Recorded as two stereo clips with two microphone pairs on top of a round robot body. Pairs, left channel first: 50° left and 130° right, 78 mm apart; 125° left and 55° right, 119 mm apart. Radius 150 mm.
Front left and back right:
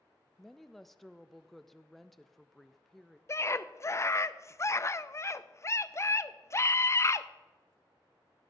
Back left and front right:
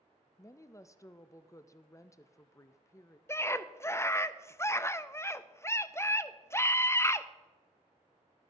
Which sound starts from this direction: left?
A scream, at 3.3 s.